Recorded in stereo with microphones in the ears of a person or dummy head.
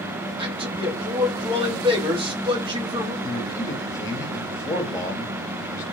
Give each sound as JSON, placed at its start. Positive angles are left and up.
{"t": 0.4, "sound": "a man speaking", "side_deg": -25, "distance_m": 0.9}
{"t": 3.2, "sound": "a man speaking", "side_deg": 20, "distance_m": 0.7}